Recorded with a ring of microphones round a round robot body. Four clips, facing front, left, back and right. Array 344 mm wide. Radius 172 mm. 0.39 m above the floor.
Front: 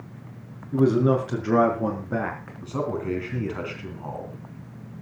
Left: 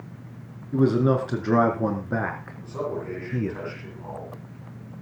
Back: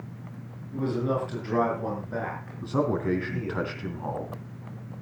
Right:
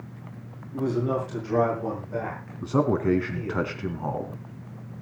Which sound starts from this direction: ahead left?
A man speaking, at 0.7 s.